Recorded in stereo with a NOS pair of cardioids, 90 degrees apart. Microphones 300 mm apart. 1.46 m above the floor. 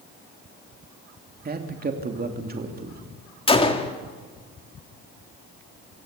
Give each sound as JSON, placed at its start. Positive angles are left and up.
{"t": 1.4, "sound": "a man speaking", "azimuth_deg": -30, "distance_m": 3.0}
{"t": 3.5, "sound": "a gunshot", "azimuth_deg": 20, "distance_m": 2.5}